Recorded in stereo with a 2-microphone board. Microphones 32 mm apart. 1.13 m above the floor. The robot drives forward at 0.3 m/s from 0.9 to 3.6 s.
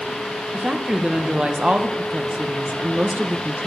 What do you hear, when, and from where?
0.5 s a woman speaking: 30° right (ahead or behind), 1.1 m; by 3.7 s 50° right (ahead or behind), 0.8 m